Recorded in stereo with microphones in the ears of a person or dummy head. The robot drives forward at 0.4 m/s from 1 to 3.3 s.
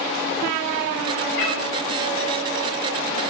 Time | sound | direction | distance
1.4 | a cat meowing | 60° left (ahead or behind) | 3 m